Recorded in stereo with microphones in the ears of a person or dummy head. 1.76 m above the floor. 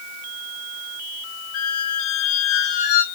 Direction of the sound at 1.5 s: 50° left (ahead or behind).